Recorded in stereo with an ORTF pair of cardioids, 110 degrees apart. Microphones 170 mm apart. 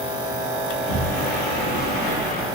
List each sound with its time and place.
0.7 s a sliding door: 65° left, 0.9 m